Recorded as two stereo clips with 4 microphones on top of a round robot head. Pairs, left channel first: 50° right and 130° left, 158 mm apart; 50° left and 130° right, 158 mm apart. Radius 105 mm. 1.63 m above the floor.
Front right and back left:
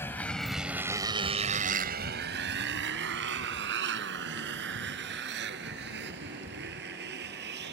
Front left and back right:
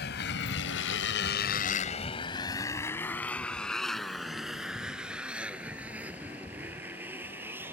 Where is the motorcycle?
30° left; by 7.7 s 150° left.